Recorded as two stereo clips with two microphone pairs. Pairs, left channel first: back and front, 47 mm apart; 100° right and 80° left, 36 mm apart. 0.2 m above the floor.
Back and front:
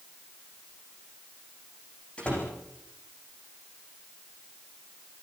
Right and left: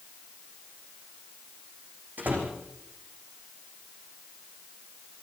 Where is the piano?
I don't hear a piano.